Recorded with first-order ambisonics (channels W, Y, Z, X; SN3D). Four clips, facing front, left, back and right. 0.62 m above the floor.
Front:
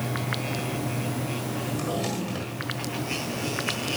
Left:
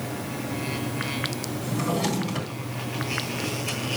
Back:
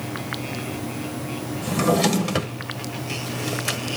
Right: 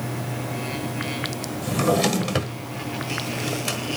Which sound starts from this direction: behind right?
A drawer, at 1.6 s.